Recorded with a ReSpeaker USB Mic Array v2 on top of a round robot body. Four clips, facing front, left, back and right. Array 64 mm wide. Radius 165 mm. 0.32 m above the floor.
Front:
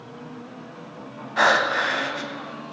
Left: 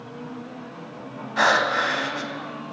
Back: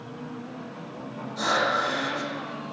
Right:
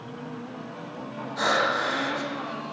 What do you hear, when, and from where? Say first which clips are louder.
1.4 s breathing: left 4 dB, front 5 dB; 35° left, 1.4 m